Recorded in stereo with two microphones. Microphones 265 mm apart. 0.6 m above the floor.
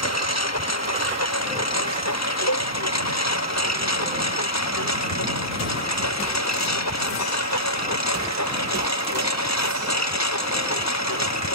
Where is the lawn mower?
75° left (ahead or behind); by 11.6 s 85° left.